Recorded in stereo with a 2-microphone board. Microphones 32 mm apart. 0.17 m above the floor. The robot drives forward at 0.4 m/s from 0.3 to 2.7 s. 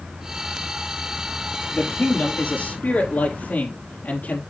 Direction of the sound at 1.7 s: 60° left (ahead or behind).